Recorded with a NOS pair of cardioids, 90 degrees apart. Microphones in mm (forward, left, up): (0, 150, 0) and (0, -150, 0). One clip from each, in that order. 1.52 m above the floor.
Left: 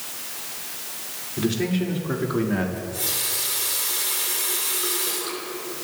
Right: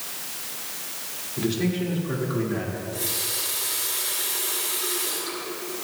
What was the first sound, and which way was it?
A man speaking, 15° left.